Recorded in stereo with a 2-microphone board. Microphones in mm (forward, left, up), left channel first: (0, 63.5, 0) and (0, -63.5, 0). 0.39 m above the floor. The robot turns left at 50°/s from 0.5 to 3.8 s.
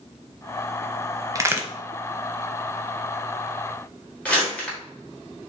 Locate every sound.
1.4 s a crack: 25° right (ahead or behind), 0.6 m; by 1.7 s 10° right (ahead or behind), 0.6 m
4.2 s crumpling: 10° left (ahead or behind), 1.4 m